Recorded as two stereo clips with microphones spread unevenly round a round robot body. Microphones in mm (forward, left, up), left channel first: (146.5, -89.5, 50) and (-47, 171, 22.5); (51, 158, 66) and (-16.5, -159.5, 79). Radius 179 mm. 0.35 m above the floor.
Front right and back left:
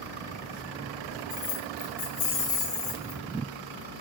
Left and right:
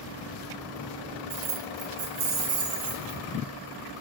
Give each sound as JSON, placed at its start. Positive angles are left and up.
{"t": 1.3, "sound": "keys jangling", "azimuth_deg": -85, "distance_m": 0.7}